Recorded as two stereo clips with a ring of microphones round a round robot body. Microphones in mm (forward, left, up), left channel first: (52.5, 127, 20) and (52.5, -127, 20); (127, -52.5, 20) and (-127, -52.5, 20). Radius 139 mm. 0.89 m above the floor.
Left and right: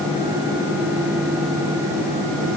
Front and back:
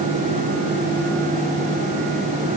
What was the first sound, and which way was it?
Only background noise.